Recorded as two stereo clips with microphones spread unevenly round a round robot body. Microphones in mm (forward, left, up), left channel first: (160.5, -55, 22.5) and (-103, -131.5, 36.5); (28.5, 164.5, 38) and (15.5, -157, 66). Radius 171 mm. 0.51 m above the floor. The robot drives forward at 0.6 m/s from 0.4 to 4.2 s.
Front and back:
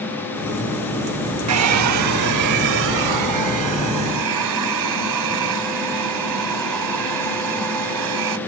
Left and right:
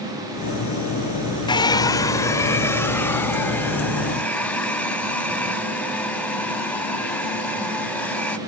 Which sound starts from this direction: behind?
A hair dryer, at 1.5 s.